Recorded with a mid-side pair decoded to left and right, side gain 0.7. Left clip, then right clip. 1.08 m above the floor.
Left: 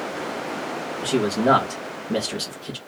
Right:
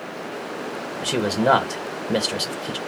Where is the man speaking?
15° right, 1.3 m.